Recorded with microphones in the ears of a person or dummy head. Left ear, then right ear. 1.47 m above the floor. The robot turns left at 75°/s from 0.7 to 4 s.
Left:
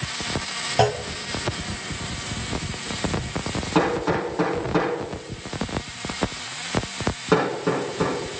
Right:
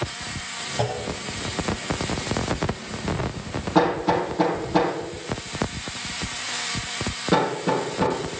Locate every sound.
0.8 s a clunk: 40° left (ahead or behind), 0.7 m; by 1.0 s 55° left (ahead or behind), 0.7 m
3.8 s hammering: 20° left (ahead or behind), 4.5 m; by 8.2 s 35° left (ahead or behind), 4.5 m